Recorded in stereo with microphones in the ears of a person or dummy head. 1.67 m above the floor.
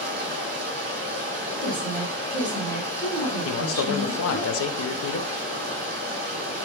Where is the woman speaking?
15° right (ahead or behind), 1.8 m.